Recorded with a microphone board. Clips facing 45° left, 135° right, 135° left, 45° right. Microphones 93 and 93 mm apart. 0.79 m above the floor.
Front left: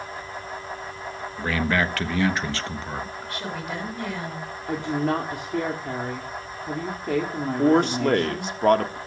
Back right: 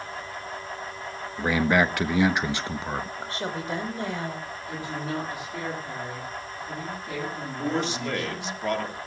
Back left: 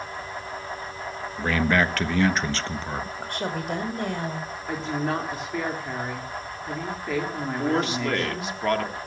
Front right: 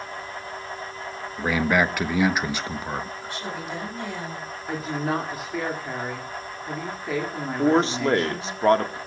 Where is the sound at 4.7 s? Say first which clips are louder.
Front left 8 dB, front right 1 dB; 40° left, 2.5 m.